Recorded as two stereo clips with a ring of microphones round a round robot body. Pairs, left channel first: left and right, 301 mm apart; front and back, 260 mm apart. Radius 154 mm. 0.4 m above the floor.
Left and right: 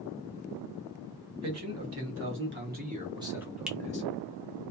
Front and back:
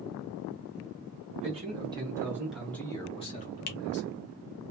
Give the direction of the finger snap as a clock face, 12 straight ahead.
12 o'clock.